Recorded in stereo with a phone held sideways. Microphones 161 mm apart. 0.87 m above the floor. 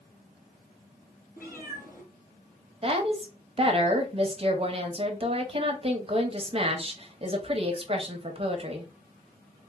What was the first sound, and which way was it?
A cat meowing, 65° left (ahead or behind).